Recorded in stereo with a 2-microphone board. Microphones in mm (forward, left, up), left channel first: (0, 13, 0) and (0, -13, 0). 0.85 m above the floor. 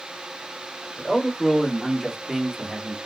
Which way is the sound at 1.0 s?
15° left (ahead or behind).